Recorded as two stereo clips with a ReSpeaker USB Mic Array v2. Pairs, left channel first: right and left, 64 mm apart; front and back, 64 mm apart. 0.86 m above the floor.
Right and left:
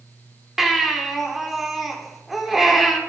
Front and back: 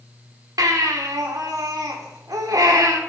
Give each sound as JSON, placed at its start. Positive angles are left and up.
{"t": 0.6, "sound": "a baby crying", "azimuth_deg": 175, "distance_m": 1.3}